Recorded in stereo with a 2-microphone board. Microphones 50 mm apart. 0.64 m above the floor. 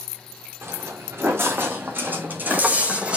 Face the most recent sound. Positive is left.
turn(degrees=-20)  # may be behind; listen again after turning